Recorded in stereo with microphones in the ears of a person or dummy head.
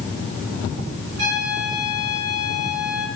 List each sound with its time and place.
1.2 s a trumpet: 60° right (ahead or behind), 8.5 m